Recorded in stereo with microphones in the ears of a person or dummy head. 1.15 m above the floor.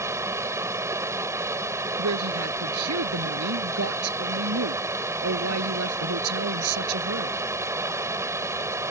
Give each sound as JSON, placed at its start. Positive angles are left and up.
{"t": 0.0, "sound": "running water", "side_deg": -15}
{"t": 2.0, "sound": "a woman speaking", "side_deg": -90}